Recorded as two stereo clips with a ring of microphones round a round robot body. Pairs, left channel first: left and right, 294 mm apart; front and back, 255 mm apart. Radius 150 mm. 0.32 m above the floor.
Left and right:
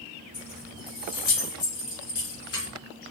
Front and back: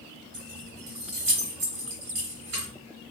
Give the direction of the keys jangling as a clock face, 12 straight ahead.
7 o'clock.